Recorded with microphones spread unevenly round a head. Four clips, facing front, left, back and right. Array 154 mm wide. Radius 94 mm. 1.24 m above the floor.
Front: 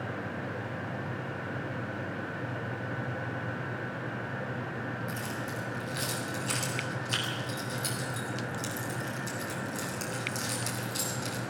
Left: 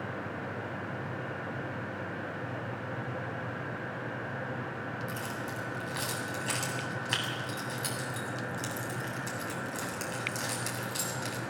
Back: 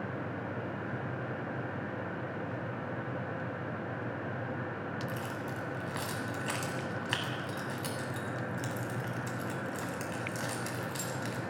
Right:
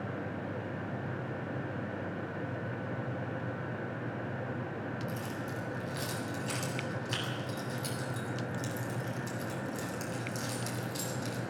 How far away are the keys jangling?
About 7.5 m.